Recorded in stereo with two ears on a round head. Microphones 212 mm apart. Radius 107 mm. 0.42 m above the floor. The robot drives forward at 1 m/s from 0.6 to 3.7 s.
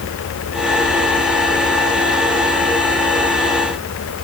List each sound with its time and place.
Only background noise.